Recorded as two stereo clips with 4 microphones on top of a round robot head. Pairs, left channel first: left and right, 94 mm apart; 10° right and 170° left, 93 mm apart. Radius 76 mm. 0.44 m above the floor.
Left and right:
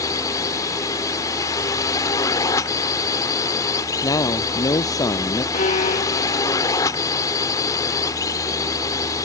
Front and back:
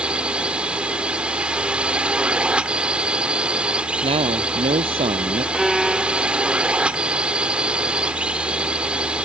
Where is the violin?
85° left.